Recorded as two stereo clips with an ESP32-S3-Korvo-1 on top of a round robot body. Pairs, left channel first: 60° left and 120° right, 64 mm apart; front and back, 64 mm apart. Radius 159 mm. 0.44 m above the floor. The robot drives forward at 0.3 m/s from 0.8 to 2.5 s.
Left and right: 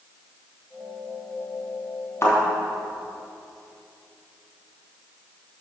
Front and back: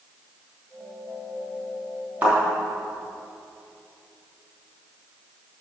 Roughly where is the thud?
Left.